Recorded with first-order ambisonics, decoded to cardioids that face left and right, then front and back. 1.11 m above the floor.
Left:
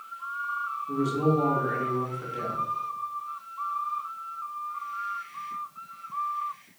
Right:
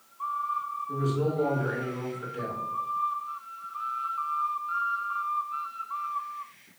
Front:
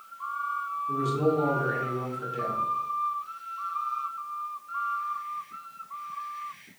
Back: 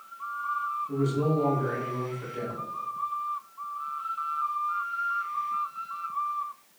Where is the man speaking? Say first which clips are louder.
Left 4 dB, front 6 dB; 55° left, 2.5 m.